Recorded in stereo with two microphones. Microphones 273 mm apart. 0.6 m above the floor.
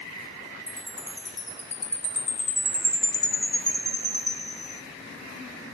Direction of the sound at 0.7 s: 25° left (ahead or behind).